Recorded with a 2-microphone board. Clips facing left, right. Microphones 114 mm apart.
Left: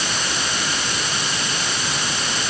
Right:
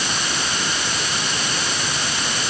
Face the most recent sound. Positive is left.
No sound to turn to.